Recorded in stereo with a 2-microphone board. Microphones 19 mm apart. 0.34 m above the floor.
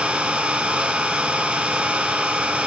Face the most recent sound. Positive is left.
turn(degrees=-75)  # may be behind; listen again after turning